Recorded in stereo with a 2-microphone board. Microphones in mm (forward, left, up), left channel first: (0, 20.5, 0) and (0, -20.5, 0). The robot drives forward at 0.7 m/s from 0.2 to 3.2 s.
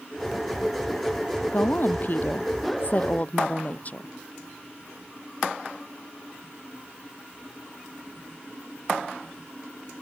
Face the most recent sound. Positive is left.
turn(degrees=35)  # may be behind; listen again after turning